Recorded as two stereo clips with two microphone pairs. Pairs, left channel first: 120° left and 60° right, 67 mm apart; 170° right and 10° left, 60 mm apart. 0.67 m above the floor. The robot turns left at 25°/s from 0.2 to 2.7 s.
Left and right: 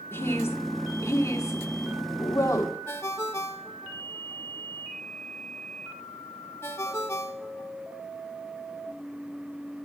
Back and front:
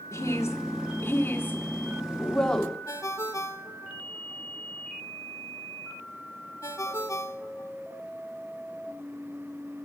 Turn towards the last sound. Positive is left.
turn(degrees=165)